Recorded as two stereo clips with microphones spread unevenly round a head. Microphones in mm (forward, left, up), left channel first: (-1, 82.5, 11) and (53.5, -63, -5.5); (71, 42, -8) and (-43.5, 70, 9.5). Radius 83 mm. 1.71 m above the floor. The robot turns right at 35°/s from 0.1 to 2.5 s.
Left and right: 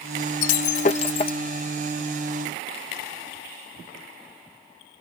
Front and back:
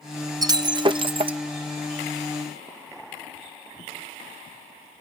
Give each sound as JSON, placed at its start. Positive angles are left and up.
{"t": 0.4, "sound": "breaking glass", "azimuth_deg": 125}